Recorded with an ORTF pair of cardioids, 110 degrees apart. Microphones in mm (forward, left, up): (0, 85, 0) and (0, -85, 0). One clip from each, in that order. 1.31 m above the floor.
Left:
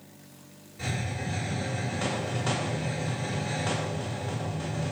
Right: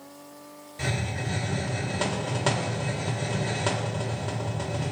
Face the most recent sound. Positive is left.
turn(degrees=-65)